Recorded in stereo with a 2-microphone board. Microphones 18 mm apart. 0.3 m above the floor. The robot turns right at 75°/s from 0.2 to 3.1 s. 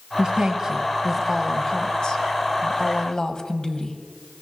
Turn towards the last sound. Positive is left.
turn(degrees=130)